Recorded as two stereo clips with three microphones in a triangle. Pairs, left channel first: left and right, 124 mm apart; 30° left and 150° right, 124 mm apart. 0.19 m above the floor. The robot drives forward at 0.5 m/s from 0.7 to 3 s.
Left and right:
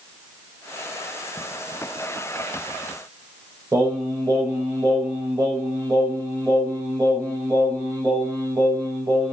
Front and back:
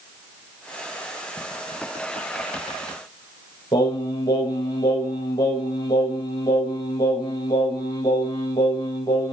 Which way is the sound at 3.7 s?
30° right.